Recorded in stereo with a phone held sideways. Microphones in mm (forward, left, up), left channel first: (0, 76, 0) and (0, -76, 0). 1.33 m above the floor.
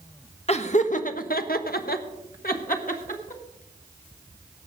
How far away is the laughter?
About 1.3 m.